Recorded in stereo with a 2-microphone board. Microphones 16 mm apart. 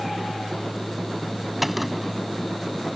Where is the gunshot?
10° right (ahead or behind).